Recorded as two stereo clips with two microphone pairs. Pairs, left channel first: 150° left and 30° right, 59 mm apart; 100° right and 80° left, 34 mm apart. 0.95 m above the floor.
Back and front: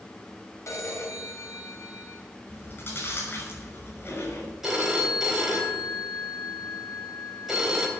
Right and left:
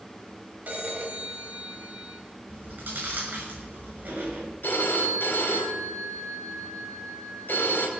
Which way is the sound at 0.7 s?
115° left.